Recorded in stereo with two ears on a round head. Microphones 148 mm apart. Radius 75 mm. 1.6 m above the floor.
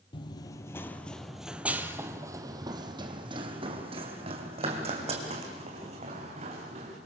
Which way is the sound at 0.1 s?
30° left (ahead or behind).